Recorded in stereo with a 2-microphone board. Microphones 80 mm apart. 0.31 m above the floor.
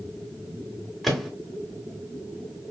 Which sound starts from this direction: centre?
A microwave, at 1.0 s.